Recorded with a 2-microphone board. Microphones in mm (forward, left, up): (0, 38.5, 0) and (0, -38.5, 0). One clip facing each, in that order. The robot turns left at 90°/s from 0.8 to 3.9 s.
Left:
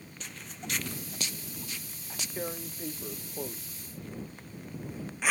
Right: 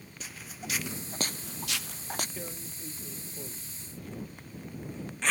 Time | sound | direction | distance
0.2 | footsteps | 5° right (ahead or behind) | ?
2.4 | tearing paper | 30° left (ahead or behind) | ?